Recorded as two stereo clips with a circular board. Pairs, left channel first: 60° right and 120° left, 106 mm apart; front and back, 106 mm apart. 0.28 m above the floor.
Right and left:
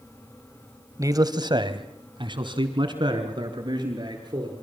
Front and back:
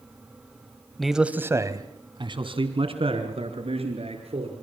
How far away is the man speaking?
About 1.5 m.